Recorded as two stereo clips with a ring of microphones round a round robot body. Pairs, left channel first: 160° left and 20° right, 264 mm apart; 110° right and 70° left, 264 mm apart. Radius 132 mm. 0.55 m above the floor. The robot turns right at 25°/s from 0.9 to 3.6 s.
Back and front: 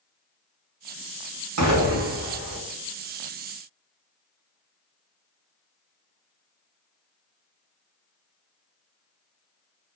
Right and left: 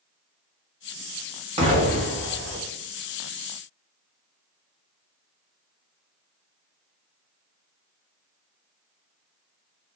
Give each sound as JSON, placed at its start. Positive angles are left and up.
{"t": 1.6, "sound": "an explosion", "azimuth_deg": 0, "distance_m": 1.0}